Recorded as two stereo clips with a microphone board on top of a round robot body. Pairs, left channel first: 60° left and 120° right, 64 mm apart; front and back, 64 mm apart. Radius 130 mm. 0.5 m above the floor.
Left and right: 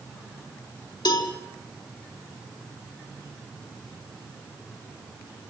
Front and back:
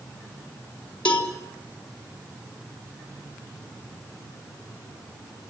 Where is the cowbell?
75° left, 4.5 m.